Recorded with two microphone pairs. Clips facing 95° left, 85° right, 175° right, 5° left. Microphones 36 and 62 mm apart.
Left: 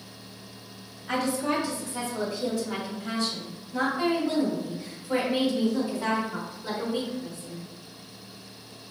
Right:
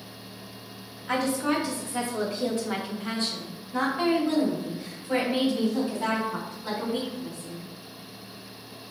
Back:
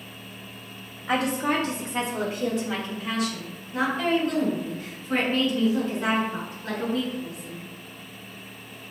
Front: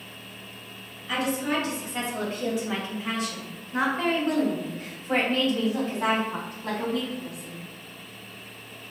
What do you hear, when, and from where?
1.1 s a woman speaking: 165° right, 1.2 m; by 7.7 s 25° right, 4.5 m